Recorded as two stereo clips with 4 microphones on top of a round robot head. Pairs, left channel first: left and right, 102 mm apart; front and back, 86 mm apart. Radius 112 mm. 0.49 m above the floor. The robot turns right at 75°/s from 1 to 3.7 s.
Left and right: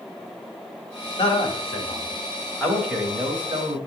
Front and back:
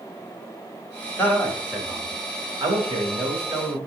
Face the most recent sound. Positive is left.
turn(degrees=-110)